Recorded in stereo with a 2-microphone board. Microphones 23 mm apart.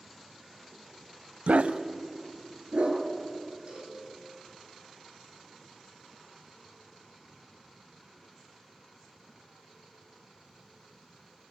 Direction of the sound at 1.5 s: 85° right.